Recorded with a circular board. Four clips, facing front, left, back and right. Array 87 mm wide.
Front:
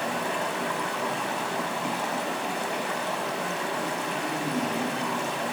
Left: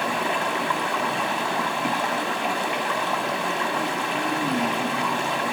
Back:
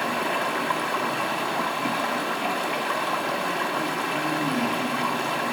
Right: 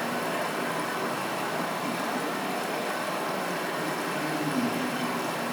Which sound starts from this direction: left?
Running water, at 0.0 s.